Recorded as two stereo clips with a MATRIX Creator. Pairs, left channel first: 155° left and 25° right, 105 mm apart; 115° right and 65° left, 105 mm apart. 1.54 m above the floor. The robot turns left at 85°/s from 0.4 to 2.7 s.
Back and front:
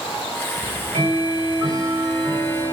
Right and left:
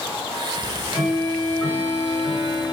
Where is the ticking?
20° left, 8 m; by 2.7 s 160° right, 8 m.